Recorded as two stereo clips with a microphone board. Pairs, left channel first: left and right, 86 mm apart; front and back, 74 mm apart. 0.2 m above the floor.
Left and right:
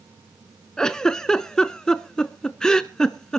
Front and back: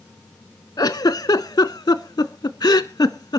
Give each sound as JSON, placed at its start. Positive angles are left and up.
{"t": 0.8, "sound": "a giggle", "azimuth_deg": 10, "distance_m": 0.6}